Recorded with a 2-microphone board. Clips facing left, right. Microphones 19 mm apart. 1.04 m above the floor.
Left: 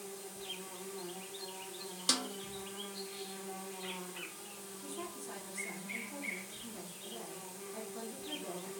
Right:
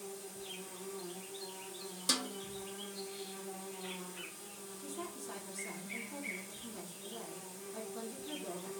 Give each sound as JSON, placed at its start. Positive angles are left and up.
{"t": 0.0, "sound": "an insect", "side_deg": 75, "distance_m": 1.3}
{"t": 2.1, "sound": "a snare drum", "side_deg": 25, "distance_m": 0.8}
{"t": 4.8, "sound": "a woman speaking", "side_deg": 0, "distance_m": 1.3}